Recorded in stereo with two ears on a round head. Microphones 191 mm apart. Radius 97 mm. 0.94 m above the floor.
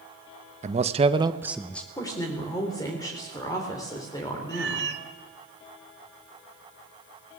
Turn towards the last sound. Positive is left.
turn(degrees=-55)  # may be behind; listen again after turning